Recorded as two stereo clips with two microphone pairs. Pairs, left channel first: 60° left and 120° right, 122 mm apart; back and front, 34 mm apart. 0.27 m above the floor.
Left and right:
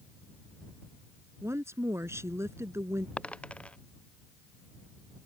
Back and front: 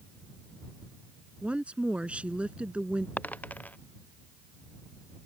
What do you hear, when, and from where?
1.4 s a woman speaking: 55° right
3.2 s a dropped coin: 140° left